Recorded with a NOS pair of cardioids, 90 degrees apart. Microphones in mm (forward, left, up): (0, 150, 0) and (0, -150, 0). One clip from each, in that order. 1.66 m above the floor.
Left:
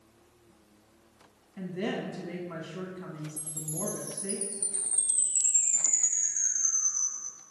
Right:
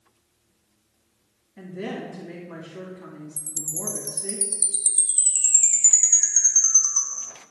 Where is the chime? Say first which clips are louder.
Right 7 dB; 55° right, 0.8 m.